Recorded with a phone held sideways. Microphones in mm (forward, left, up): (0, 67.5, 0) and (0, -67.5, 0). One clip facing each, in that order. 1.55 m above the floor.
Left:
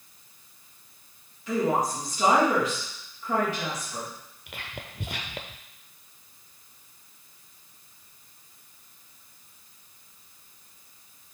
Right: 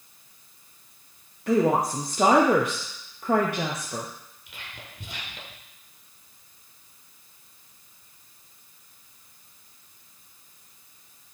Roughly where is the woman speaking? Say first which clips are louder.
Right 4 dB; right.